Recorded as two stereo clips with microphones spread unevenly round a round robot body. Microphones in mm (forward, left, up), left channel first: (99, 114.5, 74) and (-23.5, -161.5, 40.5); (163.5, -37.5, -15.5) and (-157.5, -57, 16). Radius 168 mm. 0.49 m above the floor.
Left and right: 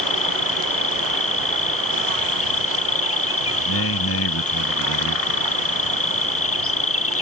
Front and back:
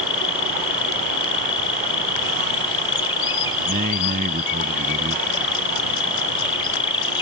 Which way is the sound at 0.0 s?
65° left.